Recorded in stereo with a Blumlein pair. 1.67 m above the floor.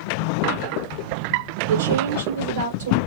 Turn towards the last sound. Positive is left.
turn(degrees=-60)